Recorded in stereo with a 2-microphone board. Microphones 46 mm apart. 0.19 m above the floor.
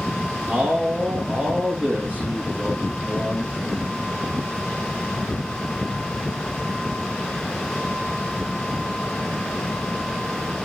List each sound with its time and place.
0.5 s a man speaking: 35° right (ahead or behind), 4 m